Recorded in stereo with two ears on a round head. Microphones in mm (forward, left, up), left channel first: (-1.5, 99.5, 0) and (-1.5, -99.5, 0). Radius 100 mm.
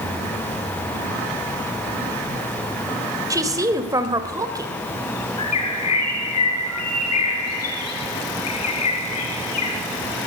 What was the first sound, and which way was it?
A woman speaking, 15° right (ahead or behind).